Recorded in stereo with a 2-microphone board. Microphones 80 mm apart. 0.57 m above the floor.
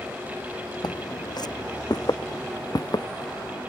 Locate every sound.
0.8 s footsteps: 65° left (ahead or behind); by 3.6 s 50° left (ahead or behind)